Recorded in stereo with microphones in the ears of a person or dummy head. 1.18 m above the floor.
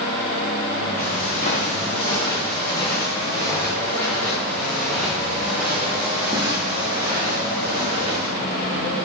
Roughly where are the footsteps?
Left.